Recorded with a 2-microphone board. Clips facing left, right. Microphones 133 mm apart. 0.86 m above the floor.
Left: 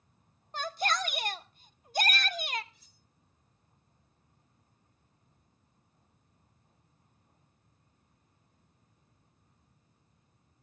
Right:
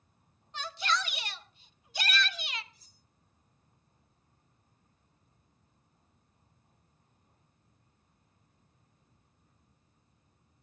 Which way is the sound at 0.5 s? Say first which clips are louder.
Left 2 dB; 45° left (ahead or behind).